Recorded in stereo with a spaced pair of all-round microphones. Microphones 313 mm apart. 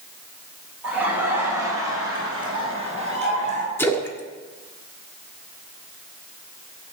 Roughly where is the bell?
No bell in this recording.